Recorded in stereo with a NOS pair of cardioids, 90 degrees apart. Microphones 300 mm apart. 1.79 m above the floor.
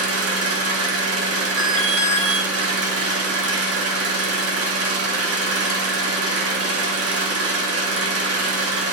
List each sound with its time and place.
0.0 s an engine running: 50° right, 3.5 m
1.6 s an alarm: 45° right, 5 m